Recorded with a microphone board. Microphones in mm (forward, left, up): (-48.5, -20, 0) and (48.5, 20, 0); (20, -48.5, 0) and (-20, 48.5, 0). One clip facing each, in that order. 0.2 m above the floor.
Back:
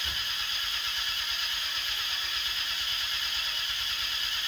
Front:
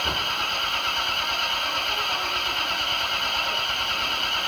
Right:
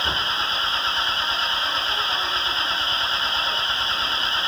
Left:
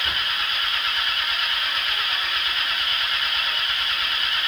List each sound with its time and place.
0.0 s an engine running: 10° right